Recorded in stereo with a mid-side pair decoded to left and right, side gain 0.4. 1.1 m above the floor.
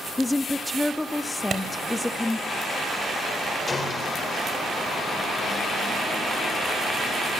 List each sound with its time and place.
0.2 s a woman speaking: 20° left, 1.6 m
1.5 s a clap: 40° right, 4 m
3.7 s a gunshot: 35° left, 4 m